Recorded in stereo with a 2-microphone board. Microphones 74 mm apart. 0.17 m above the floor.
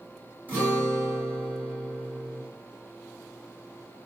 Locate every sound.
0.5 s a guitar: 25° right (ahead or behind), 1.6 m